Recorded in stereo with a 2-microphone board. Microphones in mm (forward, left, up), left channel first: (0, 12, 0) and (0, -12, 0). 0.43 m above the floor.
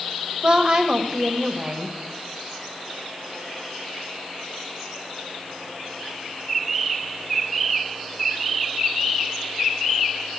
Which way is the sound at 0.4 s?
40° right (ahead or behind).